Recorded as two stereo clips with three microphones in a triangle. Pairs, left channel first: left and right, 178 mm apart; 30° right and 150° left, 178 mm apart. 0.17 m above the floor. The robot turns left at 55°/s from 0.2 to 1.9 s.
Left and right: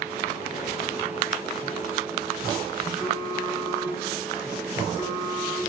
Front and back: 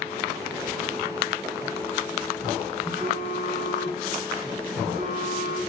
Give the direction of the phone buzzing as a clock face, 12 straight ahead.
5 o'clock.